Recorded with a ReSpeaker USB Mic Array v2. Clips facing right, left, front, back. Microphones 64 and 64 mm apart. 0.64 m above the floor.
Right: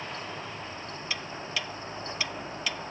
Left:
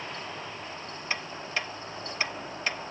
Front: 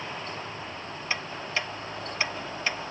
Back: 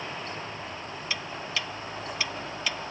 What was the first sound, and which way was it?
Ticking, 50° left.